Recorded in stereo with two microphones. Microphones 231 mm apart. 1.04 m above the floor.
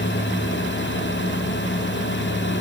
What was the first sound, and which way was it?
Only background noise.